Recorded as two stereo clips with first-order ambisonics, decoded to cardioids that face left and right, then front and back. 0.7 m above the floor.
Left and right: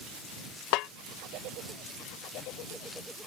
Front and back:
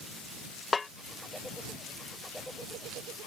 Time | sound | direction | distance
0.7 | a snare drum | 75° left | ?